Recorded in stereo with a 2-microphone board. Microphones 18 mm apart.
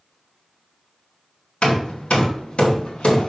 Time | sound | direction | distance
1.6 | hammering | 75° left (ahead or behind) | 2 m